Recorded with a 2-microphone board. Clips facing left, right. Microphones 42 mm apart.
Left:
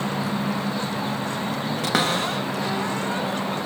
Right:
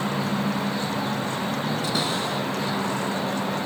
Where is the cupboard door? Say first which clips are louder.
Left 3 dB; 85° left, 1.7 m.